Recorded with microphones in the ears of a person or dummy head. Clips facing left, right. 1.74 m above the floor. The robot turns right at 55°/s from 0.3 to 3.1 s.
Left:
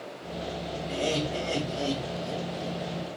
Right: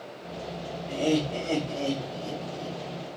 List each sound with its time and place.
0.9 s laughter: 165° right, 2 m; by 2.8 s 60° right, 2 m